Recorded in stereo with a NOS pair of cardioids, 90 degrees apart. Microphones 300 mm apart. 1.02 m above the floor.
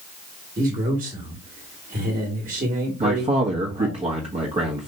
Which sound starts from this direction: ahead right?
A man speaking, at 0.6 s.